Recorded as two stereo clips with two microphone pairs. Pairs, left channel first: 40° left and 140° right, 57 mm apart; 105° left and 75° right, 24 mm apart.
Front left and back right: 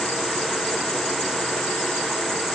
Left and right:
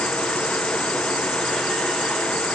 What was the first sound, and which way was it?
Only background noise.